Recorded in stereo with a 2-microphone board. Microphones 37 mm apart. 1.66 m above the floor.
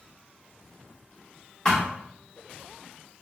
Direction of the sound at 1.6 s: 15° left (ahead or behind).